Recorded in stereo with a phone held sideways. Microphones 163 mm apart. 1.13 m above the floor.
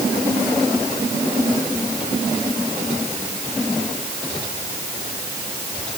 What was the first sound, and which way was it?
Only background noise.